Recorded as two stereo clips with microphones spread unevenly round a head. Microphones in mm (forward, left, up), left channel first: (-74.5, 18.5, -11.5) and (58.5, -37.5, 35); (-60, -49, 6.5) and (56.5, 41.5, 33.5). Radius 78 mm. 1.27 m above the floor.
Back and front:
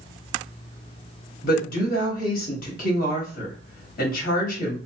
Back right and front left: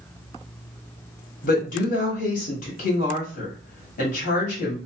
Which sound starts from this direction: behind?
A woman speaking, at 1.4 s.